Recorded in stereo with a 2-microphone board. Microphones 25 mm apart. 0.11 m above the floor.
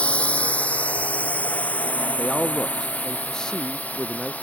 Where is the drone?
55° left (ahead or behind); by 4.4 s 80° left.